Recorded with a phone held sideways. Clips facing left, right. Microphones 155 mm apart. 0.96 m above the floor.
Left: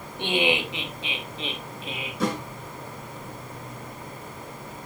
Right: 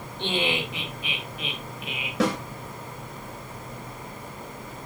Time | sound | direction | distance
0.2 | laughter | 15° left (ahead or behind) | 1.7 m
2.2 | a snare drum | 80° right | 3 m